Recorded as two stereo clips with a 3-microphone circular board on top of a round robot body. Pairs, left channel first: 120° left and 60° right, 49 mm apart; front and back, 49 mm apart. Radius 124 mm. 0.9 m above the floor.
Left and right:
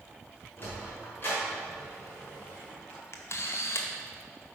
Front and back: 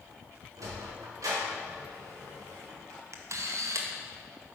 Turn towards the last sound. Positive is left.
turn(degrees=155)